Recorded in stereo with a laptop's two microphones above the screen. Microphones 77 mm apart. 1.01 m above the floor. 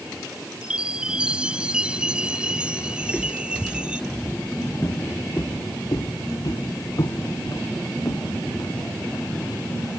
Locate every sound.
0.6 s a chime: 10° right (ahead or behind)
3.0 s footsteps: 15° right (ahead or behind); by 9.3 s 60° left (ahead or behind)